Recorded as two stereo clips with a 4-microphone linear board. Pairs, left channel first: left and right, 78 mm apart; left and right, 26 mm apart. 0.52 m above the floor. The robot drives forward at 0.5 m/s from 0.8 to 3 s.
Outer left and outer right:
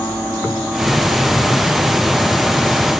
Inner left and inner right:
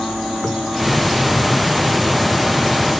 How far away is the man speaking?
I don't hear a man speaking.